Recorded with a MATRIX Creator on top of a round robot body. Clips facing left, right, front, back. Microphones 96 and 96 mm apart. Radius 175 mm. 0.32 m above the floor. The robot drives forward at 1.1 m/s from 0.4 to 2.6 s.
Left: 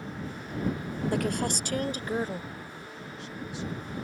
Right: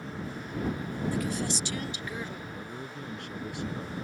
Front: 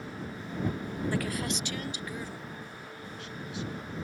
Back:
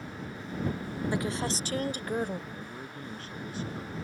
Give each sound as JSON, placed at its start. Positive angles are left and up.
{"t": 1.1, "sound": "a woman speaking", "azimuth_deg": 110}
{"t": 2.5, "sound": "a man speaking", "azimuth_deg": -125}